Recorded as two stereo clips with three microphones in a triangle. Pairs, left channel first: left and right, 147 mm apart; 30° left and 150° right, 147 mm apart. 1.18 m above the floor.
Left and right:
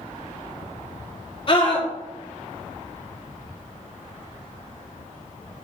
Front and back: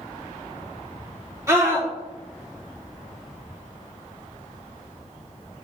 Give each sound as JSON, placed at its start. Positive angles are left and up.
{"t": 1.5, "sound": "a scream", "azimuth_deg": 140, "distance_m": 3.0}